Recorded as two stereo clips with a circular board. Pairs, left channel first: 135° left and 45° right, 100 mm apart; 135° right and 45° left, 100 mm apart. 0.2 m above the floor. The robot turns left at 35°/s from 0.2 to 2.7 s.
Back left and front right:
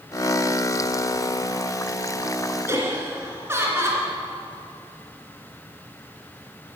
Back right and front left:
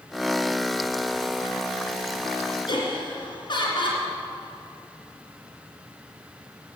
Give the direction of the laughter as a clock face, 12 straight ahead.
4 o'clock.